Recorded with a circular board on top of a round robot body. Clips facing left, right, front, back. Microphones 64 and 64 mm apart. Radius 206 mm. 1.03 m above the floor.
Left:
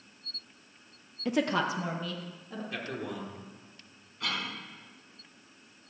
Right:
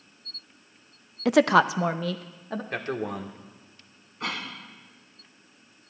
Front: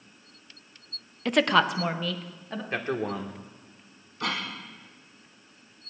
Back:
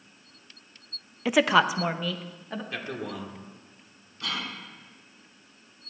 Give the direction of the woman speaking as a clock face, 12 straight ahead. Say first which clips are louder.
Right 9 dB, back 1 dB; 3 o'clock.